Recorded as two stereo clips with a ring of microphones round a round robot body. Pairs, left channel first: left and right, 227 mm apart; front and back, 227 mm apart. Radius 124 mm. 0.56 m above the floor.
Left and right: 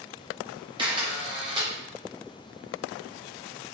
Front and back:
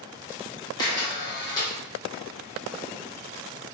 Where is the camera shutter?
50° right, 0.8 m.